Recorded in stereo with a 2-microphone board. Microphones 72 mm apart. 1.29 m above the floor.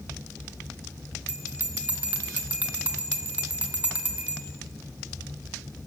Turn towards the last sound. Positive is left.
turn(degrees=-20)  # may be behind; listen again after turning